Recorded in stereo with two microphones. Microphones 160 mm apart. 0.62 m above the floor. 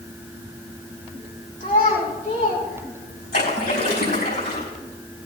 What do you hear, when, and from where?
1.6 s a child speaking: 55° left (ahead or behind), 5 m; by 3.4 s 65° left (ahead or behind), 6 m
3.3 s a splash: 85° left, 5 m